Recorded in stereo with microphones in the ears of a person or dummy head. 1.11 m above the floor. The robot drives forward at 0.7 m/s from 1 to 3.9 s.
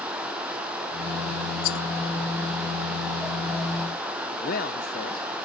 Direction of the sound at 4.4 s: 35° left (ahead or behind).